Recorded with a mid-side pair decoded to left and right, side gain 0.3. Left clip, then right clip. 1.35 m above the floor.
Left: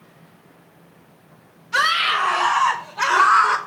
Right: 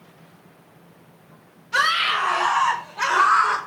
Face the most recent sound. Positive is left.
turn(degrees=35)